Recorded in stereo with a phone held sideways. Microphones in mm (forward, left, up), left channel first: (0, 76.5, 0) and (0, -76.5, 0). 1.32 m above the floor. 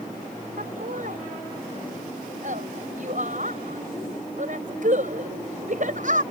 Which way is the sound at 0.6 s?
60° right (ahead or behind).